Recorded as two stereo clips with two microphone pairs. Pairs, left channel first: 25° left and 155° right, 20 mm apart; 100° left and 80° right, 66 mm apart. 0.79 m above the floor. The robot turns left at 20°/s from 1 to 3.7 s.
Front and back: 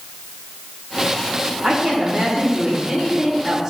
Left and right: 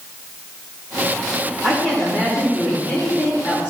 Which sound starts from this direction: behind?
A woman speaking, at 1.6 s.